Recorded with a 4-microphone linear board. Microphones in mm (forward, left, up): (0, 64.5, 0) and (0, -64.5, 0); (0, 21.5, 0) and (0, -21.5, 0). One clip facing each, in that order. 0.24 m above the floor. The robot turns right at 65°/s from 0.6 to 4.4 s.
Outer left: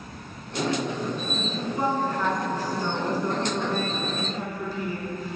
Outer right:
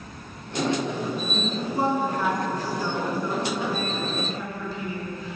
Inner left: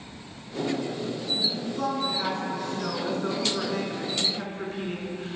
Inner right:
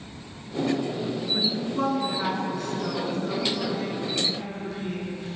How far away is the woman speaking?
About 2 m.